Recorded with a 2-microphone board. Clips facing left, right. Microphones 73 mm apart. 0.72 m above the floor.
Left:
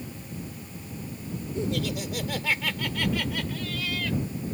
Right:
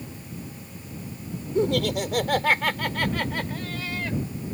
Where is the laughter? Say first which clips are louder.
Right 7 dB; 70° right (ahead or behind); by 4.2 s 30° right (ahead or behind).